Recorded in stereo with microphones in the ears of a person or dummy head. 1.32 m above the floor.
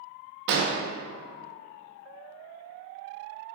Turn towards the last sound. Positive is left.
turn(degrees=-55)  # may be behind; listen again after turning